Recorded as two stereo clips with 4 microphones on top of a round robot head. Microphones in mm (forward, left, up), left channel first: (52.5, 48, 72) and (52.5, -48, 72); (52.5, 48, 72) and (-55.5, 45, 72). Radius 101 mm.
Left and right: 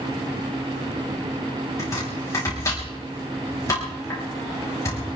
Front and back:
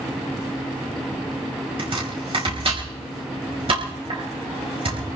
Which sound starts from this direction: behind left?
Chopping, at 1.8 s.